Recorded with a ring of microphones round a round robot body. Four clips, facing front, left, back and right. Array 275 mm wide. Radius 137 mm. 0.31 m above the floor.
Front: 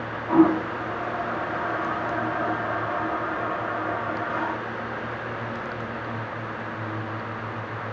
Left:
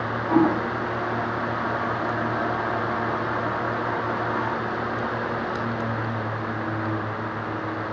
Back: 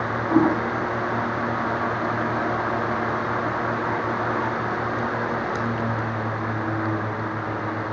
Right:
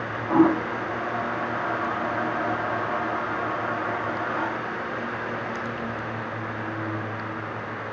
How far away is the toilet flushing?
About 2.5 m.